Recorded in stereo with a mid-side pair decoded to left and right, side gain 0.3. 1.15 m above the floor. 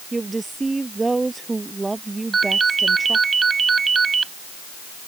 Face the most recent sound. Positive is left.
turn(degrees=-50)